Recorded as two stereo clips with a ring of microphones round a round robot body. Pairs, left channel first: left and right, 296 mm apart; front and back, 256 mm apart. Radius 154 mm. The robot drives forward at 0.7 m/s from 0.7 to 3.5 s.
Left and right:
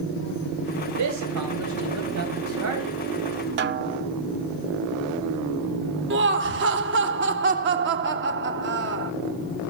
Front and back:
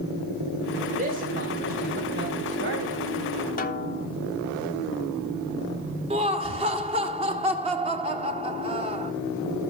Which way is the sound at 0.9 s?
115° right.